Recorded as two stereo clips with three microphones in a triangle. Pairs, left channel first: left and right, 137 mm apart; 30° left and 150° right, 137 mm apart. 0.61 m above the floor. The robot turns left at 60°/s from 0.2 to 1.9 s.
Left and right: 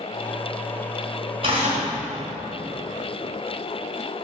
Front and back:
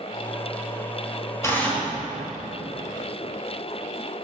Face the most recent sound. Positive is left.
turn(degrees=-70)